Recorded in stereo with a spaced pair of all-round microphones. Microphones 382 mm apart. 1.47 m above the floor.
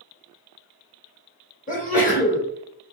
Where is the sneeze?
20° left (ahead or behind), 1.2 m.